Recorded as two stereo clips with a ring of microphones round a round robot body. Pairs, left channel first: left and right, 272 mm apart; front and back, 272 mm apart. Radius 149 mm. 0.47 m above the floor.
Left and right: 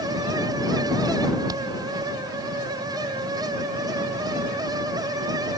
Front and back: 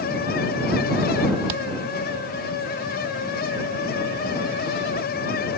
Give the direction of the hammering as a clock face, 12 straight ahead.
6 o'clock.